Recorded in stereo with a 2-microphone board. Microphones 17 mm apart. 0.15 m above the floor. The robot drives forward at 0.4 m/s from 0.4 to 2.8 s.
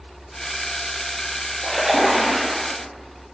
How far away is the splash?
About 3 m.